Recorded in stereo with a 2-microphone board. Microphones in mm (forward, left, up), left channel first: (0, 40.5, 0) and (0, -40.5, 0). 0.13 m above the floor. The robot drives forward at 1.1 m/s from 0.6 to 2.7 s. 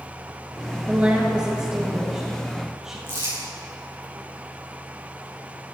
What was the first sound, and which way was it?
A woman speaking, 20° right (ahead or behind).